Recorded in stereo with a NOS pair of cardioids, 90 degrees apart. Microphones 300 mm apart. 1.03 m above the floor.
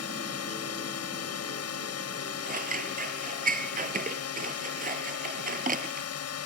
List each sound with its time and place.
0.0 s a drone: 55° left
2.4 s scissors: 25° right